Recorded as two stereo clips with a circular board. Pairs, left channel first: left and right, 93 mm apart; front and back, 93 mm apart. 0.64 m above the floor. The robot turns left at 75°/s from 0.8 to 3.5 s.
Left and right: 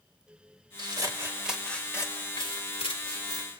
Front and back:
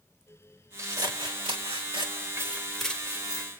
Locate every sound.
0.8 s scissors: 120° right, 1.5 m; by 3.5 s 40° left, 1.5 m